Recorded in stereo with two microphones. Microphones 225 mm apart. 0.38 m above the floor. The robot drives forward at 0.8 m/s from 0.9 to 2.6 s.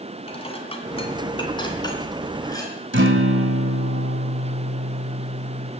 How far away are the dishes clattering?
About 1.9 m.